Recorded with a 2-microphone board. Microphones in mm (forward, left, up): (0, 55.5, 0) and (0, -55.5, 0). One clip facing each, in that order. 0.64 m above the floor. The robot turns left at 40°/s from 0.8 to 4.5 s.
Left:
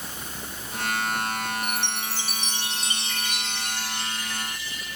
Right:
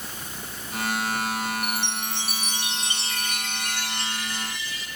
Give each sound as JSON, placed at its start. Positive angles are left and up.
{"t": 1.6, "sound": "a chime", "azimuth_deg": 25, "distance_m": 3.0}